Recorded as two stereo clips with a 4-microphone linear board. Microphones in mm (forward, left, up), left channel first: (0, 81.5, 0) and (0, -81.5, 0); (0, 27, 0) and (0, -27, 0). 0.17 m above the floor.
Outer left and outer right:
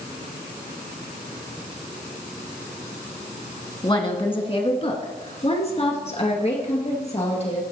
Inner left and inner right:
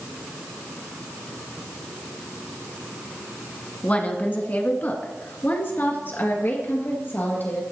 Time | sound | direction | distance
3.8 | a woman speaking | 30° left (ahead or behind) | 1.3 m